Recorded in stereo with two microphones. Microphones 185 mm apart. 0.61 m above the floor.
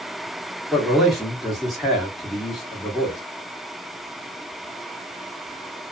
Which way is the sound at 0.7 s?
Centre (ahead or behind).